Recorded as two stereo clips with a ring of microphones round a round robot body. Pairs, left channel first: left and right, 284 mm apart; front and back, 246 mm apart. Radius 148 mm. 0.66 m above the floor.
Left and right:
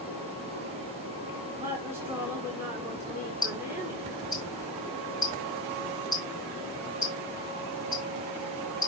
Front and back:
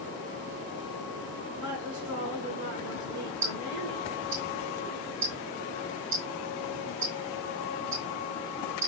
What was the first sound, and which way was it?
A woman speaking, 170° right.